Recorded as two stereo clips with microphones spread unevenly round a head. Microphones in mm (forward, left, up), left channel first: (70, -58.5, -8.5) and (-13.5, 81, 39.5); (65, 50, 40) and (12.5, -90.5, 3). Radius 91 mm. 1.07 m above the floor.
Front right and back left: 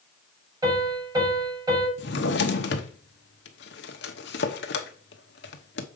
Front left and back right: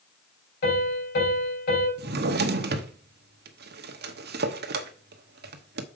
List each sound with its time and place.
0.6 s a piano: 55° left, 5 m
2.0 s a drawer: 95° right, 1.0 m